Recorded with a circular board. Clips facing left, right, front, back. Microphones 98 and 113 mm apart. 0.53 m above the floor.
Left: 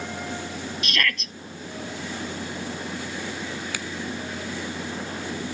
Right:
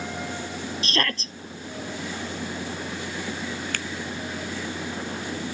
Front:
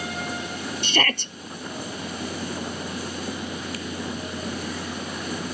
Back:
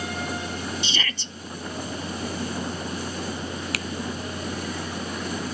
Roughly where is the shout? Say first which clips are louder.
Right 1 dB, front 7 dB; ahead right.